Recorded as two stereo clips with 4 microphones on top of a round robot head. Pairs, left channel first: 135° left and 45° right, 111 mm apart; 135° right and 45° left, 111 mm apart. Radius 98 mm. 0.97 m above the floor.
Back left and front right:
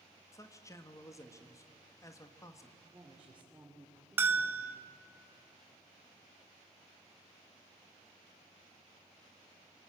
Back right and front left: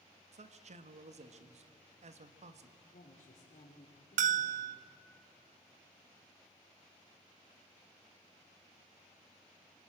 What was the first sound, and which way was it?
A man speaking, 70° left.